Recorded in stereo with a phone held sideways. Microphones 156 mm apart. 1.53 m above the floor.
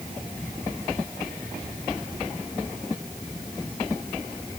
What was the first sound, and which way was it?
Only background noise.